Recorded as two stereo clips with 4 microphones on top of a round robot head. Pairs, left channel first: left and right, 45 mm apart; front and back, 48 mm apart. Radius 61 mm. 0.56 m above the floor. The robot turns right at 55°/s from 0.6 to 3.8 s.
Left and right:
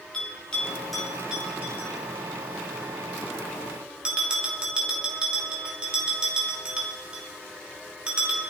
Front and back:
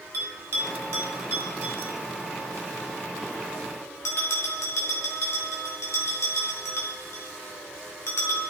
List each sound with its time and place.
0.1 s a bell: 160° left, 3.5 m; by 8.4 s 20° right, 3.5 m